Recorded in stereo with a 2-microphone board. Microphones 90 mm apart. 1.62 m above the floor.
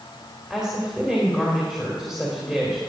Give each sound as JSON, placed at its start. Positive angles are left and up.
{"t": 0.5, "sound": "a woman speaking", "side_deg": -5, "distance_m": 2.0}